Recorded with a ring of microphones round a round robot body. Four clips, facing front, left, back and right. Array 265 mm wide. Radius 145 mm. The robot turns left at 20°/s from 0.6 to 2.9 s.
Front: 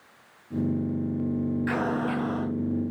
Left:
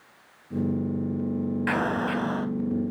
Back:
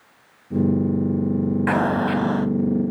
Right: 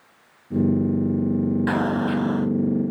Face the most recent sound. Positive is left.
turn(degrees=175)